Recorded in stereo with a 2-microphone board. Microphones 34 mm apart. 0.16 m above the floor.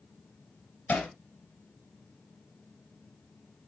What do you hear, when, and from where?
0.9 s hammering: 45° left (ahead or behind), 2.5 m